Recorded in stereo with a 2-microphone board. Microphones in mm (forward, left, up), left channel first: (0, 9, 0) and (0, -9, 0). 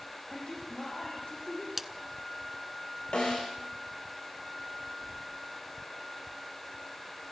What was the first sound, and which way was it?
A man speaking, 70° left (ahead or behind).